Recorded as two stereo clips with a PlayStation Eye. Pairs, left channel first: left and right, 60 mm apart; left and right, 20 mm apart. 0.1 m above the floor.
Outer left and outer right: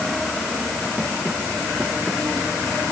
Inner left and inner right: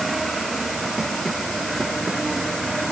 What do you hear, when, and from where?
Only background noise.